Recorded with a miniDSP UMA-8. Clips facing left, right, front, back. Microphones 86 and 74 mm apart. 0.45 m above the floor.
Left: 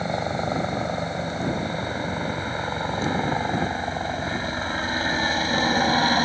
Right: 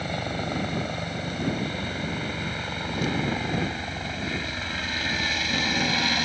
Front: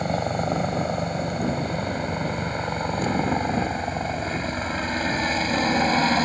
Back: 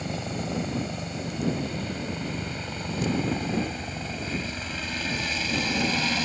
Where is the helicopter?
30° left; by 6.2 s 45° left.